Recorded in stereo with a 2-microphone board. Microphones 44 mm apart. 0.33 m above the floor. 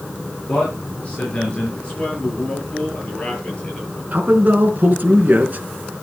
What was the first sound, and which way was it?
A man speaking, 35° left (ahead or behind).